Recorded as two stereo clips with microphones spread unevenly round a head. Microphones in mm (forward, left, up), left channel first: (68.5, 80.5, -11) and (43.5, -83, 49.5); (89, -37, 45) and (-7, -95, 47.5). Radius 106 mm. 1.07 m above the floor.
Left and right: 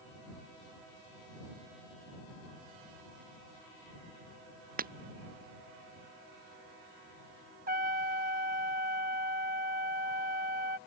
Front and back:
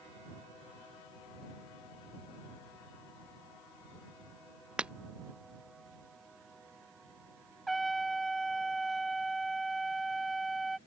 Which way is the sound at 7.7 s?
60° right.